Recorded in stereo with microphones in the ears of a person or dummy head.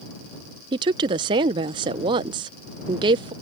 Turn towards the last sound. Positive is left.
turn(degrees=-30)  # may be behind; listen again after turning